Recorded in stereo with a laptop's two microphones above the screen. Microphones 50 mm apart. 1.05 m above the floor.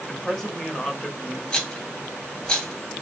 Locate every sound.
0.1 s a man speaking: 5° left (ahead or behind), 1.4 m
1.5 s a rattle: 15° left (ahead or behind), 1.4 m